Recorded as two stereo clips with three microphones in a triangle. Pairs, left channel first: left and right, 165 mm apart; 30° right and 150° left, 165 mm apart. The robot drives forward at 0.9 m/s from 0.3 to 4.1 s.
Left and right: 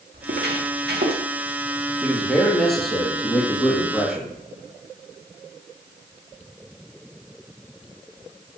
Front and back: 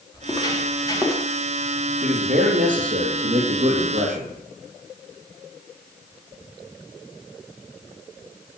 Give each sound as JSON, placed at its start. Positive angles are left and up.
{"t": 0.1, "sound": "footsteps", "azimuth_deg": -95, "distance_m": 3.0}
{"t": 2.0, "sound": "a man speaking", "azimuth_deg": 180, "distance_m": 2.5}